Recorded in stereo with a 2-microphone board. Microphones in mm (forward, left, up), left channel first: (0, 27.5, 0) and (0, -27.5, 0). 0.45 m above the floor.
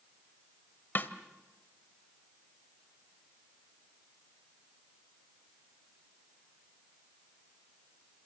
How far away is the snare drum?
About 1.4 m.